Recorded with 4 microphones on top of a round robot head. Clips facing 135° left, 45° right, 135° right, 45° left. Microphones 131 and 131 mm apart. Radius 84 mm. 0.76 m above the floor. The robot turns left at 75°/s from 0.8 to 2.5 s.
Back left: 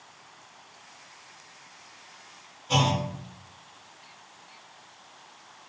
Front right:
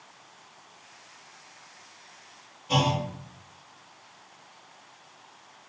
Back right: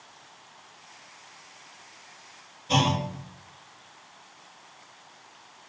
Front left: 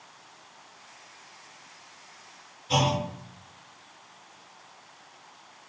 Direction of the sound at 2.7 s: 120° right.